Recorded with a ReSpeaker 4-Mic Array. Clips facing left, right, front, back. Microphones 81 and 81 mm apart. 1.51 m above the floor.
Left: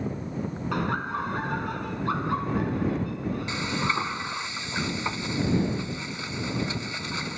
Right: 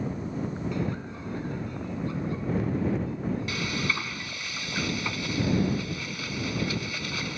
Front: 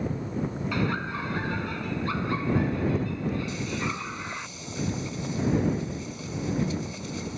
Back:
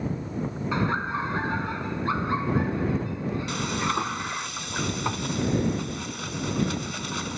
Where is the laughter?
115° left; by 4.5 s 110° left.